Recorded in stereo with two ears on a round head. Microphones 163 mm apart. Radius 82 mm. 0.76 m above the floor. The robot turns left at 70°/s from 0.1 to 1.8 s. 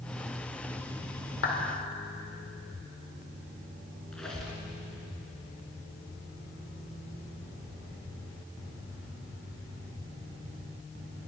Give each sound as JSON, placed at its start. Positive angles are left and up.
{"t": 1.4, "sound": "a clap", "side_deg": 75, "distance_m": 2.5}
{"t": 4.1, "sound": "a squeak", "side_deg": 5, "distance_m": 2.5}